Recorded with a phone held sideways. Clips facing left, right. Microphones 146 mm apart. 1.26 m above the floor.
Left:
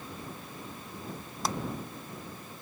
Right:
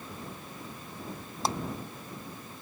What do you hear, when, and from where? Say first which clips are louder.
1.4 s a clap: right 2 dB; 30° right (ahead or behind)